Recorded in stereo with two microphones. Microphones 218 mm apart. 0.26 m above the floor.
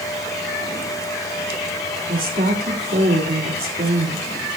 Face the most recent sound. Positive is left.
turn(degrees=-45)  # may be behind; listen again after turning